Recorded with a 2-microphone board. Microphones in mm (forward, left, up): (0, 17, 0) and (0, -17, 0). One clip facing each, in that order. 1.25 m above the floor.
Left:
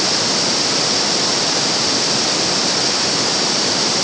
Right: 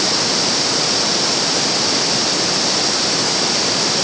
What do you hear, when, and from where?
Only background noise.